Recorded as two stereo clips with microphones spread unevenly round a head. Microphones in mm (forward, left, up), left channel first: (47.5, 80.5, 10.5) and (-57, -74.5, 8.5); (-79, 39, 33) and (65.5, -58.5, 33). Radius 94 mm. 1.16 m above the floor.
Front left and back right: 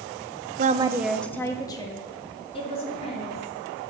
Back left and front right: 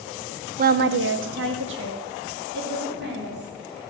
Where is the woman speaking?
80° right, 0.7 m; by 3.5 s straight ahead, 4 m.